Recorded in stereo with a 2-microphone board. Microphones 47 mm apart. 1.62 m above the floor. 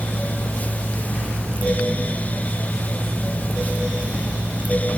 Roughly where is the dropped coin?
No dropped coin in this recording.